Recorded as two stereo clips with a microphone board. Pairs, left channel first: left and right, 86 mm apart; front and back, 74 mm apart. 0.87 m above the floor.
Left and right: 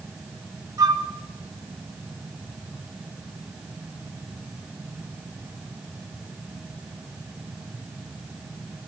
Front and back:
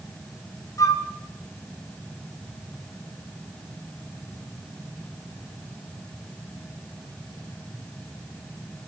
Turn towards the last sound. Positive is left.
turn(degrees=-45)